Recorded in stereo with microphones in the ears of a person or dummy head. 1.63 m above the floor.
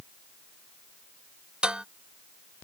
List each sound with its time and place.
1.6 s dishes clattering: centre (ahead or behind)